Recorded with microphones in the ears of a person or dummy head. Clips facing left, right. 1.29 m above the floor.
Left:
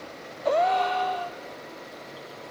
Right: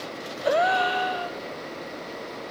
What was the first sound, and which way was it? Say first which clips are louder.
A gasp: even; 10° right (ahead or behind).